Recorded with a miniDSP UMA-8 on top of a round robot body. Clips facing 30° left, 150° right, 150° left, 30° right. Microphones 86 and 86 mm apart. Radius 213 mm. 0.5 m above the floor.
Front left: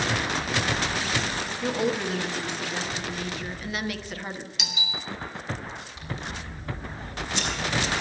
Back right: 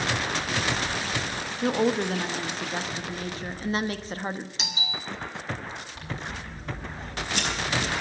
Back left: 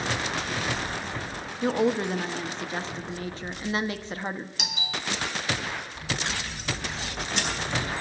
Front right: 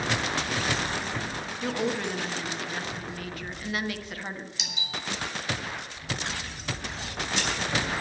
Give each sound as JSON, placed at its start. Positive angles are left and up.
{"t": 1.6, "sound": "a woman speaking", "azimuth_deg": -170, "distance_m": 1.4}
{"t": 4.6, "sound": "a doorbell", "azimuth_deg": 165, "distance_m": 2.5}
{"t": 6.0, "sound": "scissors", "azimuth_deg": 180, "distance_m": 4.5}